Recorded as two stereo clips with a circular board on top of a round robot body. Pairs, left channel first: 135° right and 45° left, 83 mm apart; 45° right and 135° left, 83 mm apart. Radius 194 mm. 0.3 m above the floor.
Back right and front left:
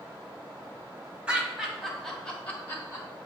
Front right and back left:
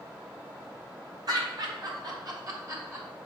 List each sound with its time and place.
1.3 s laughter: 120° left, 1.6 m; by 3.1 s 175° left, 1.4 m